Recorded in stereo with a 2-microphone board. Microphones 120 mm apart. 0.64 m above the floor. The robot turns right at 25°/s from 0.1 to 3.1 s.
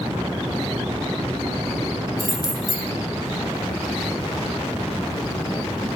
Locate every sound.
2.2 s keys jangling: 45° left (ahead or behind), 1.7 m; by 2.9 s 25° left (ahead or behind), 1.7 m